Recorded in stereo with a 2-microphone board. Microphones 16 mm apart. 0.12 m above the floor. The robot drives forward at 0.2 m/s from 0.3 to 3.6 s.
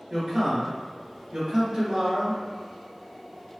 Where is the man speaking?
25° right (ahead or behind), 1.6 m.